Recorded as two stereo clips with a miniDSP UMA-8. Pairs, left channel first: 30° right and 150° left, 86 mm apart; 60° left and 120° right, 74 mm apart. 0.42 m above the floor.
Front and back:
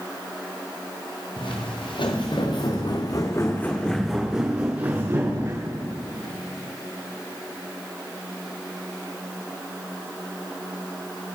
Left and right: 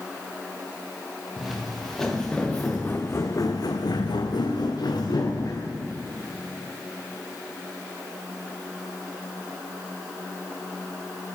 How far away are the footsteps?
About 3 m.